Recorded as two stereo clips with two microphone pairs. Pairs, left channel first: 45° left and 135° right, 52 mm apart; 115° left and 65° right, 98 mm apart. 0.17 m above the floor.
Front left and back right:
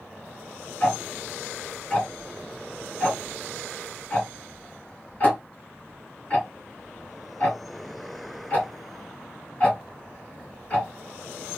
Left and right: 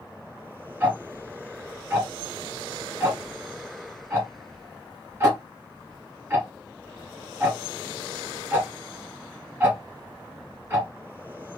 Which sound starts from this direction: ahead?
Ticking, at 0.8 s.